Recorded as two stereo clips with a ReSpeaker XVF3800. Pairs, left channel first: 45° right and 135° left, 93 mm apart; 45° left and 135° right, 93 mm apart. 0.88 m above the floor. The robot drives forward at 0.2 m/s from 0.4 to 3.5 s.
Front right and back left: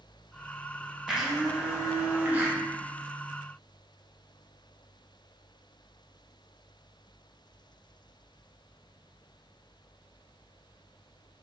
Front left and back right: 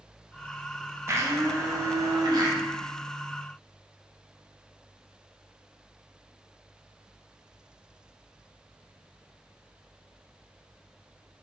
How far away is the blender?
About 0.5 m.